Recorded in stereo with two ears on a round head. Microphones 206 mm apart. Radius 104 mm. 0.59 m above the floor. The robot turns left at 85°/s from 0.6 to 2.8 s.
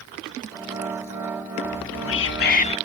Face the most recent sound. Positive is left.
turn(degrees=25)